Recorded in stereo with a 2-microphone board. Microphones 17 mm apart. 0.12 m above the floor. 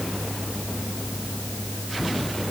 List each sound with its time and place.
Only background noise.